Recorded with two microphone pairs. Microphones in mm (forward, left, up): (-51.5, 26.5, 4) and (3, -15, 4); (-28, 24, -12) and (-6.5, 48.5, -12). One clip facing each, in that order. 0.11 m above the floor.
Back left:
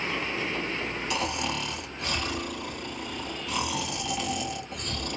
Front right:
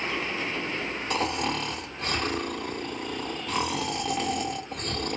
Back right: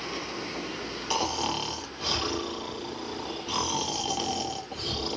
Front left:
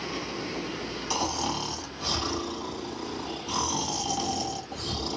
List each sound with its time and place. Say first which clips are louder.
1.1 s snoring: front right 4 dB, back right 1 dB; 75° right, 1.1 m